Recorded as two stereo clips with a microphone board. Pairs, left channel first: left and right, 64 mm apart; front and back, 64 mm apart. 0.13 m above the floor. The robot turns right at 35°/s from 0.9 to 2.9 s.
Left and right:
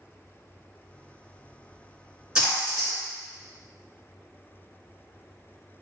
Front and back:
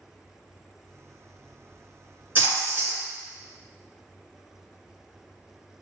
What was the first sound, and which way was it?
A splash, 160° right.